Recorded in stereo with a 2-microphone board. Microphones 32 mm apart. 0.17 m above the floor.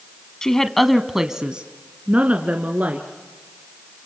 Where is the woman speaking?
20° left (ahead or behind), 1.0 m; by 3.1 s 50° right (ahead or behind), 2 m.